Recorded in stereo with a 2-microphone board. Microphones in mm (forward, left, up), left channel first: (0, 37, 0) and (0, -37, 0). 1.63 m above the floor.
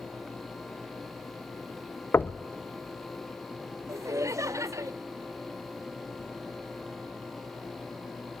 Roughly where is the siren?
No siren in this recording.